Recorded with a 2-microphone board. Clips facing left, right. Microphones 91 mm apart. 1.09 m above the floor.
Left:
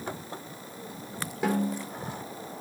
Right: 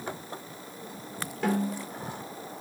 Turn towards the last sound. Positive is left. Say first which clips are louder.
# left 1 dB
turn(degrees=15)  # may be behind; listen again after turning